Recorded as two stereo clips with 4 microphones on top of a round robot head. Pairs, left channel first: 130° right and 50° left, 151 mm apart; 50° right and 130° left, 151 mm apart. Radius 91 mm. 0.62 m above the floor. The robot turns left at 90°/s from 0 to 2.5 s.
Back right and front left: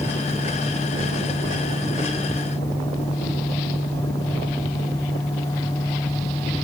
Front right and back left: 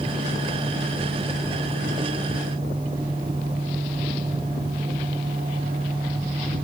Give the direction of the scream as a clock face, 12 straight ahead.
I don't hear a scream.